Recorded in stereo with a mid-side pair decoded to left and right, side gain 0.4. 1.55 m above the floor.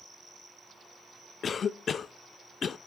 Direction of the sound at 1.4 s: 55° left.